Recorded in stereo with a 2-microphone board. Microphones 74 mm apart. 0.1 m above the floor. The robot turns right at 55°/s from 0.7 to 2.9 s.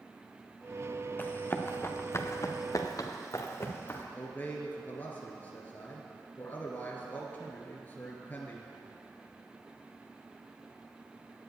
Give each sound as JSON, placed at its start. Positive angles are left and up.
{"t": 1.2, "sound": "running footsteps", "side_deg": 25, "distance_m": 1.3}
{"t": 4.1, "sound": "a man speaking", "side_deg": 25, "distance_m": 1.4}